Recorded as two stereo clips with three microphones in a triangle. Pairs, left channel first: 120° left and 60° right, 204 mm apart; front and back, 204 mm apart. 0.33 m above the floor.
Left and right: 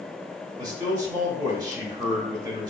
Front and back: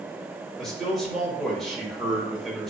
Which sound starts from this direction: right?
A man speaking, at 0.6 s.